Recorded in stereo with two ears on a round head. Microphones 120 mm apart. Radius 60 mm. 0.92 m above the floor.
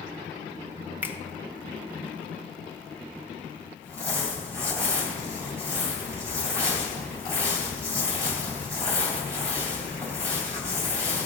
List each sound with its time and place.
1.0 s a finger snap: 15° right (ahead or behind), 1.0 m
3.8 s crumpling: 20° right (ahead or behind), 3 m